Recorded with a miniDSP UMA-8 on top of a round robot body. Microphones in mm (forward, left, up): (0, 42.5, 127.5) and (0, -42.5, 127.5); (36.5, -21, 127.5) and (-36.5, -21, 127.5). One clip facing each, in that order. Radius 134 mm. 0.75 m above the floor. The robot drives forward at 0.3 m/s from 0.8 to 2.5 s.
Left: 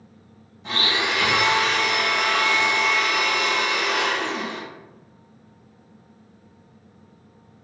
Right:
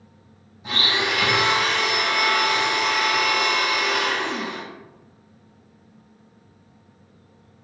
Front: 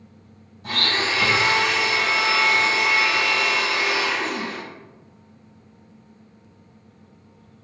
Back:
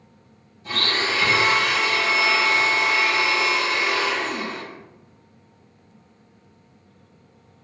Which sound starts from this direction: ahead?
A blender, at 0.6 s.